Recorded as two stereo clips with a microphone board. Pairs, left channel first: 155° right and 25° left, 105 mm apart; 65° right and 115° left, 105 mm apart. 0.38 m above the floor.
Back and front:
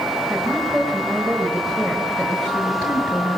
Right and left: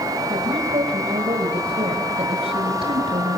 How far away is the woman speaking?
About 5.5 m.